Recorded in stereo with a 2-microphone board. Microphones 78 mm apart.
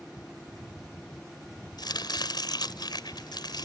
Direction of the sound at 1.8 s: 65° left (ahead or behind).